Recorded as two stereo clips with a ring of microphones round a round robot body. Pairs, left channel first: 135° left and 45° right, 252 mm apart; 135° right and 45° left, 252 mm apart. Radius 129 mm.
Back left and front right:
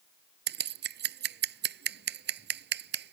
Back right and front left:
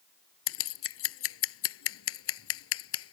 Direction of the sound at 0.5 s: 95° right.